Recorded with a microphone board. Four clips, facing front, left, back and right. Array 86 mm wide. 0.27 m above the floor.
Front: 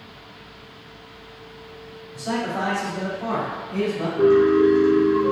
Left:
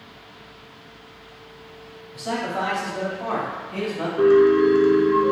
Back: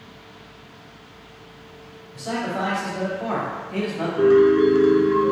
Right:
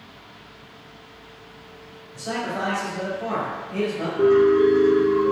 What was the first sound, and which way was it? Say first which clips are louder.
A man speaking: left 2 dB, front 1 dB; 95° left.